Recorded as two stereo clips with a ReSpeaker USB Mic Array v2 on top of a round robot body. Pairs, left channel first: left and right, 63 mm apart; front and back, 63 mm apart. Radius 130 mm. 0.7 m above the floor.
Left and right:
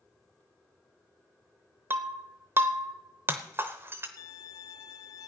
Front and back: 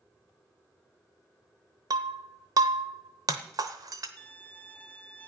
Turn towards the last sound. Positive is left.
turn(degrees=65)